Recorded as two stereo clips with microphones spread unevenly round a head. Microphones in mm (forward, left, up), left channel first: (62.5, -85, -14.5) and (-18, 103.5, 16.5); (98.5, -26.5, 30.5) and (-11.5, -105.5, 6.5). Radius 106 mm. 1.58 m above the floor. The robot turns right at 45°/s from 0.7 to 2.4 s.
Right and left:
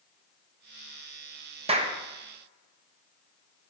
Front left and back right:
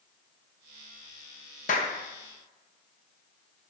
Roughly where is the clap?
Ahead left.